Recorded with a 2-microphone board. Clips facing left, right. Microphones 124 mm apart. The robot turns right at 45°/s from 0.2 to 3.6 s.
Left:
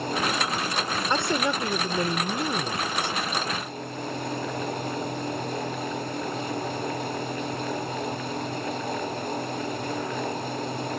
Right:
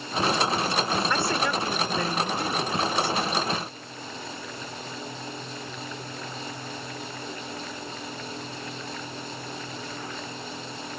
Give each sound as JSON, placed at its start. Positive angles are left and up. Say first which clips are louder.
{"t": 1.1, "sound": "a woman speaking", "louder": "left 1 dB", "side_deg": 20}